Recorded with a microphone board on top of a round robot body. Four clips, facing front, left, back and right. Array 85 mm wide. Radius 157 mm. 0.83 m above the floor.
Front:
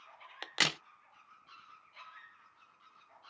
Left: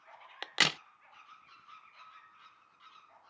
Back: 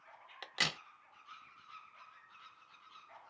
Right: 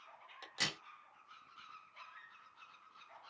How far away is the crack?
About 0.5 m.